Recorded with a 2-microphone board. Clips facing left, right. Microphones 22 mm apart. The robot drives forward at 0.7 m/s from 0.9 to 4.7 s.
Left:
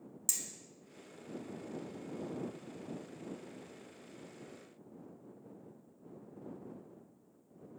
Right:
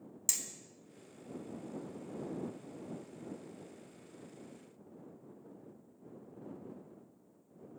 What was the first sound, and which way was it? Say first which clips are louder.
Hammering: right 1 dB; 20° right (ahead or behind).